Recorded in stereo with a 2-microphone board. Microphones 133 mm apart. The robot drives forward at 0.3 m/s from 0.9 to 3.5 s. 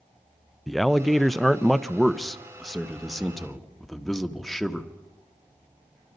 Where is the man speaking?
Centre (ahead or behind), 0.5 m.